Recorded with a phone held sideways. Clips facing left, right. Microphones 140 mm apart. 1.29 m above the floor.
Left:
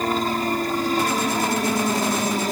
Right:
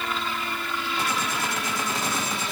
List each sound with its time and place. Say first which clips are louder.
0.0 s a helicopter: left 8 dB; 40° left (ahead or behind)